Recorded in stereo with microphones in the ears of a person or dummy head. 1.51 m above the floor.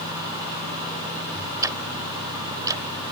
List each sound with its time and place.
1.6 s ticking: 20° right (ahead or behind)